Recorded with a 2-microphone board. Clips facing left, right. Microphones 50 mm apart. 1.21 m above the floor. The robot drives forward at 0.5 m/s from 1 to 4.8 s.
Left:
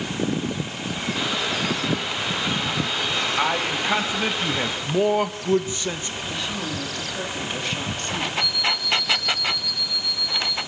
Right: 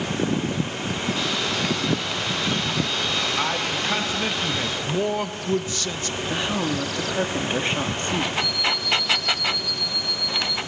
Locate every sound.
3.4 s a man speaking: 15° left (ahead or behind), 1.9 m; by 6.2 s 20° left (ahead or behind), 1.2 m
6.3 s a woman speaking: 30° right (ahead or behind), 2 m
8.4 s an alarm clock: 15° right (ahead or behind), 8 m